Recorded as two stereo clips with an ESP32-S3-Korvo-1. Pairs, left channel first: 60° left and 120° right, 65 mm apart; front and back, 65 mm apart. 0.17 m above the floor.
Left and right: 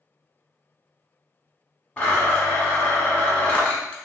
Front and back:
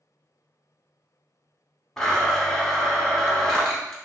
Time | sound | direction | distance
2.0 | a blender | 55° left | 1.0 m